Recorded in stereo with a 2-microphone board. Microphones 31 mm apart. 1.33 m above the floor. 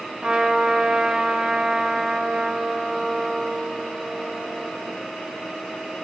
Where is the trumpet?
30° right (ahead or behind), 0.6 m.